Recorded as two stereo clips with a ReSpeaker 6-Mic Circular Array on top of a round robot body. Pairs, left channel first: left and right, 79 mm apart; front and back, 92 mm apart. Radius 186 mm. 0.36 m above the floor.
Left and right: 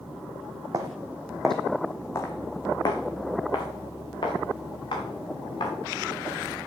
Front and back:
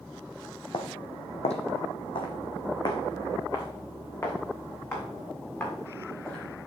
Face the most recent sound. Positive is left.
turn(degrees=70)